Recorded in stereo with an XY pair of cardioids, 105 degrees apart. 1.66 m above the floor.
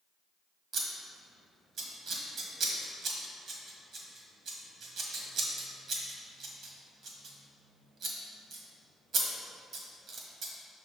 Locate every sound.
0.7 s scissors: 65° right, 1.5 m